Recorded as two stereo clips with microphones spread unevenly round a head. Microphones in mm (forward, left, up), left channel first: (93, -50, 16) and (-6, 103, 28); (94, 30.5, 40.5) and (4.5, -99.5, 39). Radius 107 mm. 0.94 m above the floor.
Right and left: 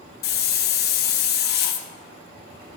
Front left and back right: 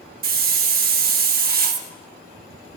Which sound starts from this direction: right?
A hiss, at 0.2 s.